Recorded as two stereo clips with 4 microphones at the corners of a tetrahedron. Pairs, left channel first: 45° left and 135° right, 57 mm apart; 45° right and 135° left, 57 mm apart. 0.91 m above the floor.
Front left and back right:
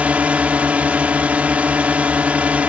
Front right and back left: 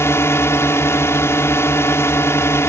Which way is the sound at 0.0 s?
70° right.